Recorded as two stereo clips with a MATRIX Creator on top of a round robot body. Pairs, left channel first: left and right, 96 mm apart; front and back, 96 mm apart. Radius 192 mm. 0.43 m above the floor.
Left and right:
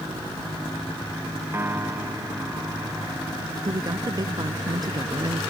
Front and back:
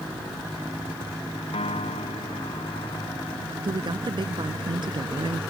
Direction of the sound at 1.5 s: 20° right.